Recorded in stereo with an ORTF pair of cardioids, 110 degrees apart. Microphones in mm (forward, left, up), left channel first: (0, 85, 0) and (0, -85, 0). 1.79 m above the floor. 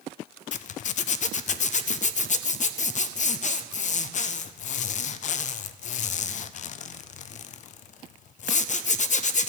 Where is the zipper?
45° left, 0.6 m.